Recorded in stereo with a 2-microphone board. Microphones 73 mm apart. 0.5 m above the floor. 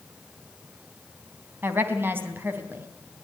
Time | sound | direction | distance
1.6 | a woman speaking | 30° right (ahead or behind) | 3 m